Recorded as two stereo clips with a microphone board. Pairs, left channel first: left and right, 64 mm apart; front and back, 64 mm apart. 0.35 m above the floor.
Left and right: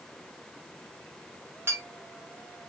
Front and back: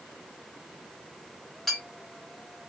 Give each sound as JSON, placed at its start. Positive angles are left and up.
{"t": 1.7, "sound": "a clink", "azimuth_deg": -85, "distance_m": 0.8}